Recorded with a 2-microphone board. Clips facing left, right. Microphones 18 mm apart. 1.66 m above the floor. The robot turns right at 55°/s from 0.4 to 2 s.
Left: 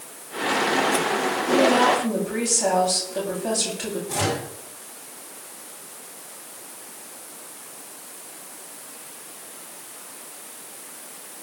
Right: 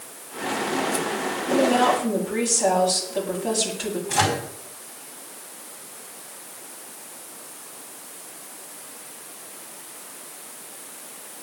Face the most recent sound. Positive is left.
turn(degrees=-35)  # may be behind; listen again after turning